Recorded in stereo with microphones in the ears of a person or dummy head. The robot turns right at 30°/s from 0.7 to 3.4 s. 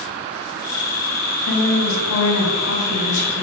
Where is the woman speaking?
70° left, 1.6 m; by 3.4 s 130° left, 1.6 m.